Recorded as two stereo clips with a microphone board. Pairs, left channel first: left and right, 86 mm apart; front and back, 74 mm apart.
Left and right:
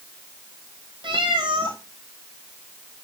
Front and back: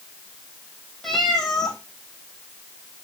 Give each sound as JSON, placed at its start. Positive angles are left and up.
{"t": 1.0, "sound": "a cat meowing", "azimuth_deg": -85, "distance_m": 1.8}